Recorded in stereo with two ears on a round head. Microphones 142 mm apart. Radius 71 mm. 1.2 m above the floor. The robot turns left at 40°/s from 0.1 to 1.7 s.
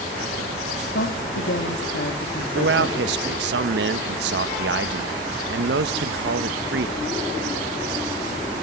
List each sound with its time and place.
0.9 s a man speaking: 110° left, 2.5 m; by 3.0 s 80° left, 2.5 m
2.5 s a man speaking: 75° right (ahead or behind), 1.5 m